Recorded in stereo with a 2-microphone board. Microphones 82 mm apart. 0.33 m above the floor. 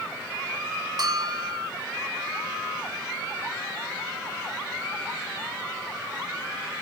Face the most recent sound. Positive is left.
turn(degrees=-55)  # may be behind; listen again after turning